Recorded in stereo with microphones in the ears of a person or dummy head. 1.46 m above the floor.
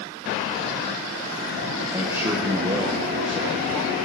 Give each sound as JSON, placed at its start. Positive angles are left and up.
{"t": 1.9, "sound": "a man speaking", "side_deg": -15, "distance_m": 1.6}